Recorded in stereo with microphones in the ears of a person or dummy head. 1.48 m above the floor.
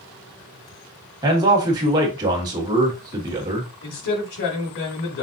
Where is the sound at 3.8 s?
70° left (ahead or behind), 2 m.